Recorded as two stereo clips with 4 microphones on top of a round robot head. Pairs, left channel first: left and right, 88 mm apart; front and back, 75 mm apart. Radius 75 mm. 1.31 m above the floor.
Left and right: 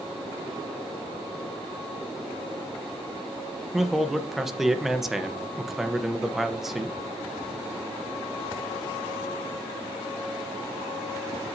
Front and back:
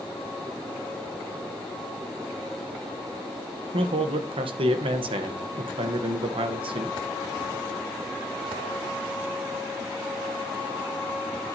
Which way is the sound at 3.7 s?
Straight behind.